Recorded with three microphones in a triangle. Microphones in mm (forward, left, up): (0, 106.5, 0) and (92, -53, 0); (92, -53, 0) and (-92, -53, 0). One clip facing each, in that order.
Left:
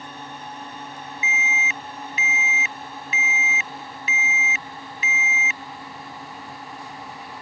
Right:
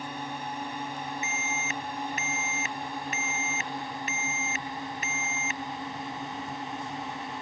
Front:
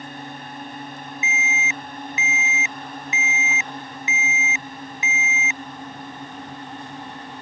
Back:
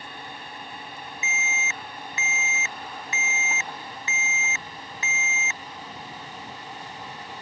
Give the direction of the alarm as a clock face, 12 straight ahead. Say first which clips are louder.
Left 2 dB, front 5 dB; 2 o'clock.